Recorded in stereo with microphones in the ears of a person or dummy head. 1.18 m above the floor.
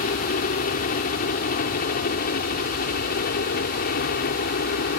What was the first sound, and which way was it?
A helicopter, 45° left (ahead or behind).